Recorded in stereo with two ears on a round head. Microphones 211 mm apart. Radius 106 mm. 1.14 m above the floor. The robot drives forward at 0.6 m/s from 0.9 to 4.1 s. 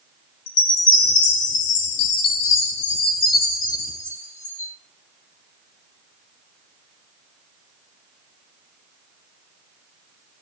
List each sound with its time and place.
0.5 s a chime: 55° left (ahead or behind), 1.0 m; by 4.7 s 30° left (ahead or behind), 1.6 m